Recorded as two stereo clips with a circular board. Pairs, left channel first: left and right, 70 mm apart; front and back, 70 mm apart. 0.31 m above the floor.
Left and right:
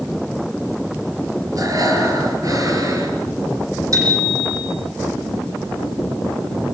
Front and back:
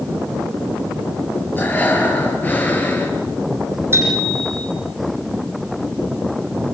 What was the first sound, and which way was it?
Breathing, 65° right.